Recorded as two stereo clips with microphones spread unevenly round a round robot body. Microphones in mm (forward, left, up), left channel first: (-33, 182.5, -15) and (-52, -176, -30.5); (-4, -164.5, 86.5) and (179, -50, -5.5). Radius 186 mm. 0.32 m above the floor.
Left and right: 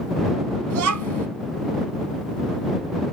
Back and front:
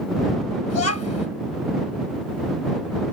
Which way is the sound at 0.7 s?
130° right.